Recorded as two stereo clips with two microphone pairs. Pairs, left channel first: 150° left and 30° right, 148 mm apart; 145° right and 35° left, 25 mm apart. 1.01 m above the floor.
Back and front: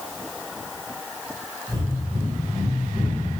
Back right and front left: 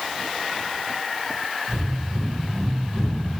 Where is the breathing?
35° left, 1.3 m.